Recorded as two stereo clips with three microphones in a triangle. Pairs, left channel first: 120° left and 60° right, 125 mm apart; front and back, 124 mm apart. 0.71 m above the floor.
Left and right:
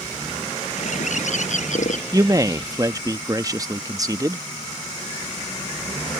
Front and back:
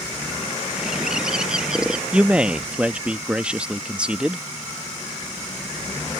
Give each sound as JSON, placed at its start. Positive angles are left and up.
{"t": 0.8, "sound": "a bird", "azimuth_deg": 95}
{"t": 2.1, "sound": "a man speaking", "azimuth_deg": -105}